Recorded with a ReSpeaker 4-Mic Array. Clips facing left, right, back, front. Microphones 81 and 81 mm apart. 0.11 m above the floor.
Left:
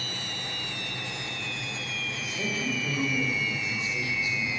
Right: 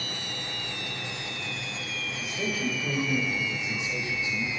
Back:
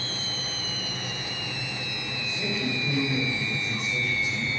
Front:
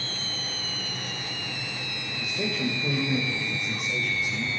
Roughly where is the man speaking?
Ahead.